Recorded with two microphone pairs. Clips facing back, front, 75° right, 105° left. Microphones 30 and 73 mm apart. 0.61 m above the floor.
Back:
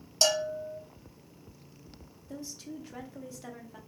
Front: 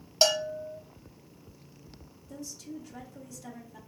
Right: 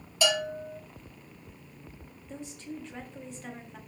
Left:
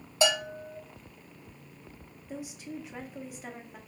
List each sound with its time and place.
0.2 s a bell: 55° left, 0.7 m
2.3 s a woman speaking: straight behind, 0.6 m